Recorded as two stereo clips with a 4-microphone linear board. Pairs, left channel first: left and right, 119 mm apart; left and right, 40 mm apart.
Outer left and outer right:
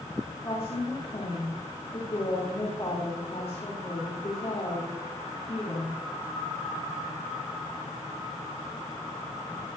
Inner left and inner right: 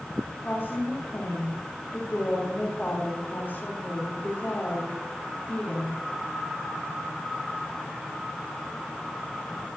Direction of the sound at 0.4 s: 60° left (ahead or behind).